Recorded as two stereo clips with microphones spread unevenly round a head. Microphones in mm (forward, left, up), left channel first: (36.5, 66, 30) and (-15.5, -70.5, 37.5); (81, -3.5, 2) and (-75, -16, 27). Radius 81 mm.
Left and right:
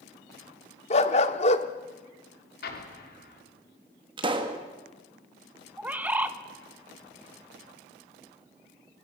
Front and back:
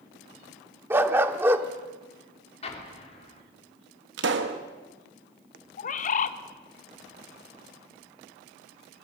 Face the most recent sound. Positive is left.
turn(degrees=-30)